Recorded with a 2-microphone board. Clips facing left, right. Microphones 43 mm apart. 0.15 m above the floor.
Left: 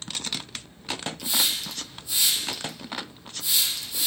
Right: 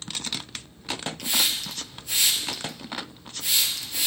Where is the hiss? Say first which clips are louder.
Right 1 dB; 55° right (ahead or behind), 2 m.